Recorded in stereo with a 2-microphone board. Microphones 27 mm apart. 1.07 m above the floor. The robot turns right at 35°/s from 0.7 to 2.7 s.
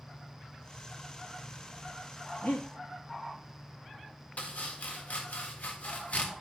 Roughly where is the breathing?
Left.